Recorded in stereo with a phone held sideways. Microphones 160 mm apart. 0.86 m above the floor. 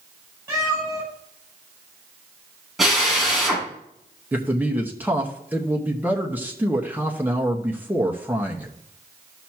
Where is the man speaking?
10° right (ahead or behind), 1.2 m.